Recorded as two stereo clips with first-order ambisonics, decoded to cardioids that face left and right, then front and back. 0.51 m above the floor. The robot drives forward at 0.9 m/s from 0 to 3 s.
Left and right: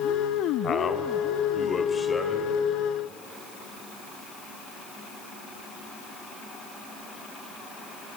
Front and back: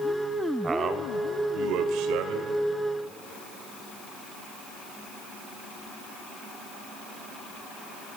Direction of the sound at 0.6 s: 120° left.